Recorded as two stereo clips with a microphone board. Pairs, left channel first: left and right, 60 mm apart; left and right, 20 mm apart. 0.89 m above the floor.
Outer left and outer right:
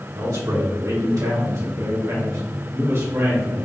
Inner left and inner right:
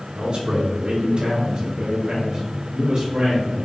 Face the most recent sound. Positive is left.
turn(degrees=-45)  # may be behind; listen again after turning